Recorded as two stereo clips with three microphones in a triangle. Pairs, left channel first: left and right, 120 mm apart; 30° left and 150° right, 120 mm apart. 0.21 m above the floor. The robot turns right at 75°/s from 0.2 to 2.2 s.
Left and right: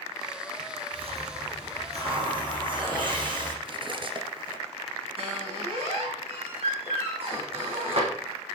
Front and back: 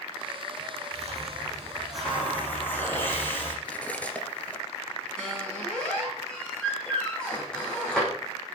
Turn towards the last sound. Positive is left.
turn(degrees=-50)